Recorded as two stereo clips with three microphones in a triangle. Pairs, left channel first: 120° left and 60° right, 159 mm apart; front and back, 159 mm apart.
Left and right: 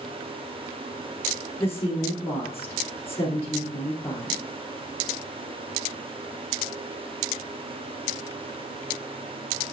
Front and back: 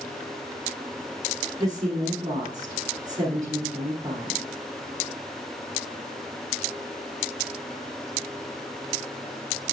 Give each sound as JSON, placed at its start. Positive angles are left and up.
{"t": 1.6, "sound": "a woman speaking", "azimuth_deg": 165, "distance_m": 1.8}